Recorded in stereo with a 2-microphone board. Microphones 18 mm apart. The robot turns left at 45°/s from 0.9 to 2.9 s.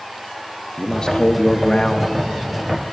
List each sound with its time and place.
0.8 s a man speaking: 100° left, 0.5 m; by 2.2 s 45° left, 0.5 m